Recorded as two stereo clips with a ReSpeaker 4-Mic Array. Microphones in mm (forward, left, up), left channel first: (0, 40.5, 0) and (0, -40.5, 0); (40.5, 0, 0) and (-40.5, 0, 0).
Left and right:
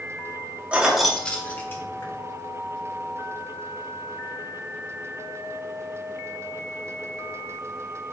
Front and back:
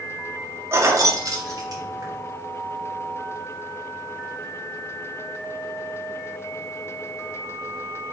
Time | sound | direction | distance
0.7 | keys jangling | 155° right | 0.6 m